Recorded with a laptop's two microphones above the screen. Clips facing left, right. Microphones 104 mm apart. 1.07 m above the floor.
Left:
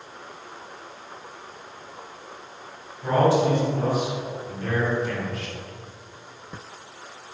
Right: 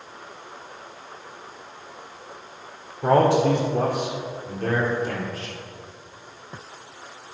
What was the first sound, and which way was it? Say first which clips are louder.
A man speaking: right 2 dB; 80° right.